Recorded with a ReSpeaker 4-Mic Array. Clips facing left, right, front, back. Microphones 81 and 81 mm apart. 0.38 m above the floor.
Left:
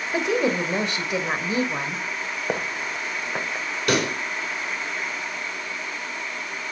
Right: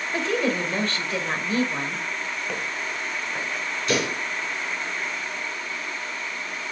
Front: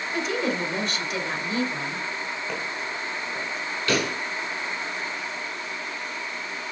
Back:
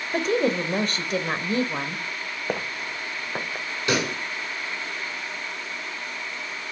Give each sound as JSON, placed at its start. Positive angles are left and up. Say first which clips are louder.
{"t": 0.1, "sound": "a woman speaking", "louder": "left 2 dB, back 5 dB", "azimuth_deg": 155, "distance_m": 1.4}
{"t": 2.5, "sound": "footsteps", "louder": "left 3 dB, back 1 dB", "azimuth_deg": 135, "distance_m": 1.6}
{"t": 3.9, "sound": "a pop", "louder": "left 2 dB, even", "azimuth_deg": 110, "distance_m": 4.0}